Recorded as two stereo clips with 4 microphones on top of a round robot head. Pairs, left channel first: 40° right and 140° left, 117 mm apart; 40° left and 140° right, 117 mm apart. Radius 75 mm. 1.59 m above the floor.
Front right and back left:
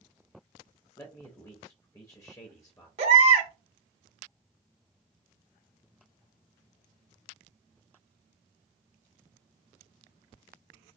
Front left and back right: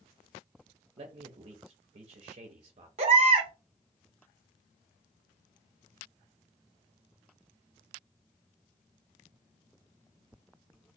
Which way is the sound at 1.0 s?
105° right.